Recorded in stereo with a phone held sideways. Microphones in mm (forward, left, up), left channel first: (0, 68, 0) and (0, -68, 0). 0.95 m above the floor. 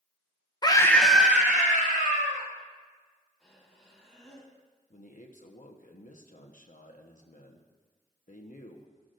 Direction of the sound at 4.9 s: 70° left (ahead or behind).